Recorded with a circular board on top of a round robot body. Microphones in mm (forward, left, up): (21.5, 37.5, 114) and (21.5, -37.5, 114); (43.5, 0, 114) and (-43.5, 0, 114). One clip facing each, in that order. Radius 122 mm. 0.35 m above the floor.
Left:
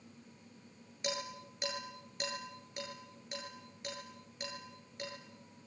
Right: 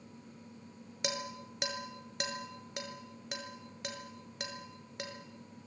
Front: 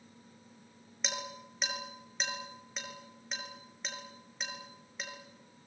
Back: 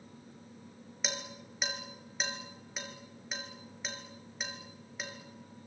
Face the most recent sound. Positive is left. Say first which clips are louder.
# right 1 dB, front 1 dB
turn(degrees=-90)